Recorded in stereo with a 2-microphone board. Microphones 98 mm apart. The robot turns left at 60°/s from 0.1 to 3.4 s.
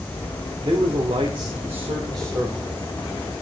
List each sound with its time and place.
0.6 s a man speaking: 50° right, 1.8 m; by 2.7 s 175° right, 1.8 m